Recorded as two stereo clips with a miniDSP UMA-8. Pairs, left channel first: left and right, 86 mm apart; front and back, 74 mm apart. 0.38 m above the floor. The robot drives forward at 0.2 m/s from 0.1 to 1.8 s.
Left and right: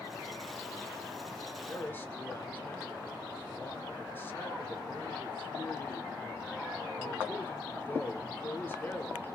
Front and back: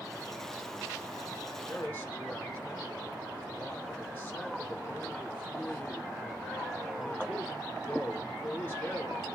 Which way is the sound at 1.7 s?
50° left.